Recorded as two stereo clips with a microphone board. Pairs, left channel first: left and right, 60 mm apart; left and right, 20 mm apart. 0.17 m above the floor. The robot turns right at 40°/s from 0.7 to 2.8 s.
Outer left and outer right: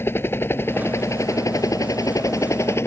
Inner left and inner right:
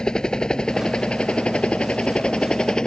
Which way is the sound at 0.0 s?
40° left (ahead or behind).